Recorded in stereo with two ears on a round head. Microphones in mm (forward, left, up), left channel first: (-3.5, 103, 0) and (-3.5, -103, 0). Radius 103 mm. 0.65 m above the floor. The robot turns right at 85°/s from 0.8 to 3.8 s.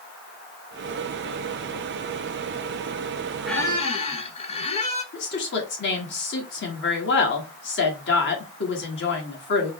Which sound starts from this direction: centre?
A squeak, at 3.5 s.